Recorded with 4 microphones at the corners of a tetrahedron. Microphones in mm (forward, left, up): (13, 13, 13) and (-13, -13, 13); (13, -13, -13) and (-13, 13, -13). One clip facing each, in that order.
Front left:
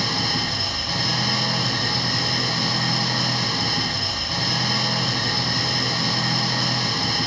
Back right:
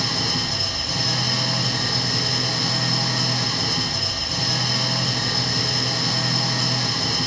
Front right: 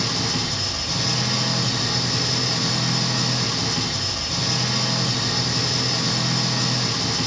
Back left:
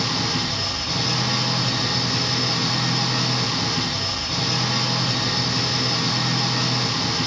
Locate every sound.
0.0 s an engine running: 90° left, 1.2 m